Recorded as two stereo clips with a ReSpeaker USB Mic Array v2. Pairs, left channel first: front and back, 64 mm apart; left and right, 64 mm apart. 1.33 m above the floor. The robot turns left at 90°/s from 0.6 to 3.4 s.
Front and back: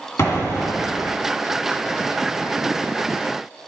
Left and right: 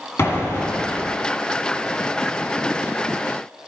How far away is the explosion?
About 2 m.